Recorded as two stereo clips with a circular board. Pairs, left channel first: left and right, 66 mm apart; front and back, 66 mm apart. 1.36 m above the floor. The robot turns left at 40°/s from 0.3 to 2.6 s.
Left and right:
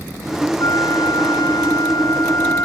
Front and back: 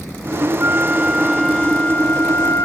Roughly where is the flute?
Behind left.